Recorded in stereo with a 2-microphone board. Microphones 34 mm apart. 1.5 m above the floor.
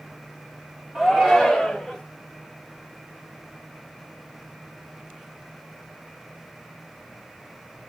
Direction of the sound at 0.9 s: 15° right (ahead or behind).